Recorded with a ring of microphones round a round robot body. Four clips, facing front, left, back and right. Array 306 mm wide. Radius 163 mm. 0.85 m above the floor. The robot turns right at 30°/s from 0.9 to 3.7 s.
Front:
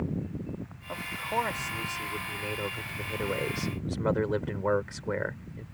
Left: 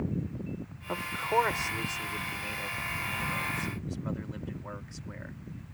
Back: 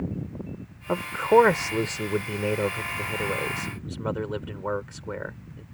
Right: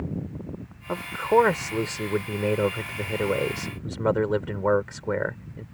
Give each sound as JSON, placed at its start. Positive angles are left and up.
{"t": 0.9, "sound": "a man speaking", "azimuth_deg": -165}